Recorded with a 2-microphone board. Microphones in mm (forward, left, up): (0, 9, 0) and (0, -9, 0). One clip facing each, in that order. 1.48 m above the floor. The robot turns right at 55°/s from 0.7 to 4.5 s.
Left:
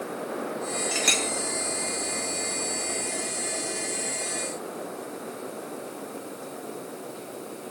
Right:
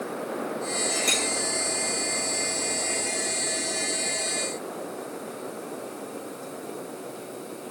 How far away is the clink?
About 0.7 m.